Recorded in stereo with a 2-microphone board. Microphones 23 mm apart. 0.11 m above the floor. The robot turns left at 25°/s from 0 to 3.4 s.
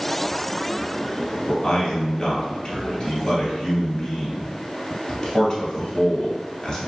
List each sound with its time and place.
1.5 s a man speaking: 35° left (ahead or behind), 1.5 m; by 6.8 s 20° left (ahead or behind), 1.5 m